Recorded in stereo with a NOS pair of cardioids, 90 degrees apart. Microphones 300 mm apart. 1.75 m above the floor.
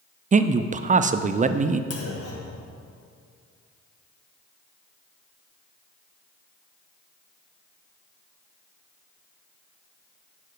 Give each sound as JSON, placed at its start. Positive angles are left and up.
{"t": 0.3, "sound": "a man speaking", "azimuth_deg": -25, "distance_m": 0.5}
{"t": 1.9, "sound": "a clunk", "azimuth_deg": 50, "distance_m": 1.7}